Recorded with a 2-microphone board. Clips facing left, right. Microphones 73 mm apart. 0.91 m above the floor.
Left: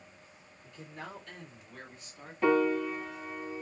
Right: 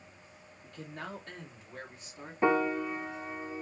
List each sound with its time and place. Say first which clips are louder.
0.6 s a man speaking: right 2 dB; 60° right (ahead or behind), 1.6 m; by 2.3 s 25° right (ahead or behind), 2.5 m
2.4 s a piano: left 1 dB; 25° right (ahead or behind), 0.9 m